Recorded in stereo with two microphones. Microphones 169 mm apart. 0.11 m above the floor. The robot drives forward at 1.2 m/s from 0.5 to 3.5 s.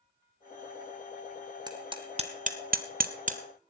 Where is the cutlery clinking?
No cutlery clinking in this recording.